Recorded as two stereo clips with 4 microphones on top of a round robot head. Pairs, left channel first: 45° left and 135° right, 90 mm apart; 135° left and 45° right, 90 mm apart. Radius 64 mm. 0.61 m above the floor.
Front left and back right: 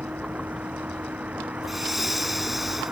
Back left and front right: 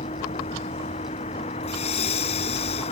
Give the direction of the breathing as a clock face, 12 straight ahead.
7 o'clock.